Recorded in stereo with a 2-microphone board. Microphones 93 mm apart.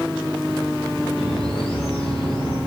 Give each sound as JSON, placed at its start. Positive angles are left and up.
{"t": 1.2, "sound": "a bird", "side_deg": 10, "distance_m": 8.5}